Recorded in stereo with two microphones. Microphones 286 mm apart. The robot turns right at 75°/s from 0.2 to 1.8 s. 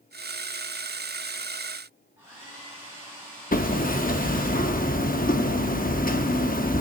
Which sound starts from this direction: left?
Hammering, at 3.5 s.